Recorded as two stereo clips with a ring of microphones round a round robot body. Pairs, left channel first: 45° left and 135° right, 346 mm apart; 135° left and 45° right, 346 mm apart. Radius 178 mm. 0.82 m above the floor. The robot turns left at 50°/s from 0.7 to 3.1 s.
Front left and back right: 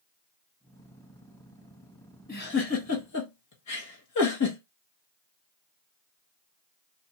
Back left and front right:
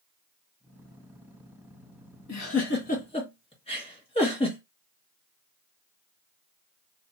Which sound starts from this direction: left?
A giggle, at 2.3 s.